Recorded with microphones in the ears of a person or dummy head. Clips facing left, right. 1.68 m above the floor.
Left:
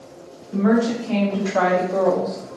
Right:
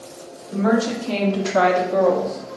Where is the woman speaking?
65° right (ahead or behind), 1.2 m; by 2.6 s 25° left (ahead or behind), 0.6 m.